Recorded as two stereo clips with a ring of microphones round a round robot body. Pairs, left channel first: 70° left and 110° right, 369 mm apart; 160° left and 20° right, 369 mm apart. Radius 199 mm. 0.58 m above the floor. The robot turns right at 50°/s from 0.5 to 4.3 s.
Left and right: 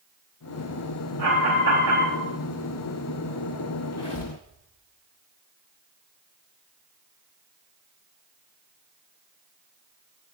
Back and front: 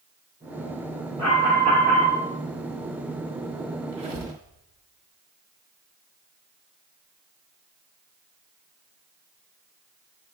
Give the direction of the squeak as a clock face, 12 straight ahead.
1 o'clock.